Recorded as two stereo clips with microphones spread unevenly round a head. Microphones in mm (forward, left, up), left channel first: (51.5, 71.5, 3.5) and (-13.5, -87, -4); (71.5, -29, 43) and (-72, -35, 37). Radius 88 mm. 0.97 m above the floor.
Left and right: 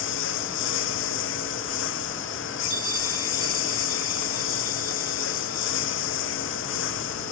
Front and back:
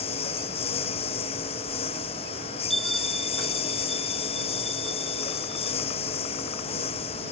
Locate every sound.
0.0 s a lawn mower: 60° left
2.7 s a bell: 90° right